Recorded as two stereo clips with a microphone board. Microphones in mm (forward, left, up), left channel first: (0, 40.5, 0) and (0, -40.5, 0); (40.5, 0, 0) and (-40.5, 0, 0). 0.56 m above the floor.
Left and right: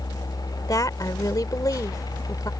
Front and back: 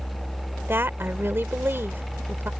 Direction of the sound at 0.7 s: 120° left.